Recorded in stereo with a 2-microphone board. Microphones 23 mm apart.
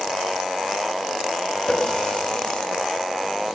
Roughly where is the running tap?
Left.